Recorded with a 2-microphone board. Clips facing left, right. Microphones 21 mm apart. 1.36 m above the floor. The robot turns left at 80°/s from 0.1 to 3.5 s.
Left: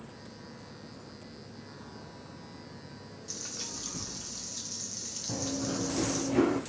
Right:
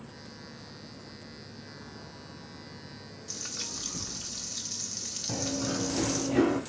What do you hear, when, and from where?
3.3 s frying: 5° right (ahead or behind), 1.0 m; by 6.3 s 20° right (ahead or behind), 1.0 m
5.3 s running footsteps: 30° right (ahead or behind), 1.6 m; by 6.6 s 5° right (ahead or behind), 1.8 m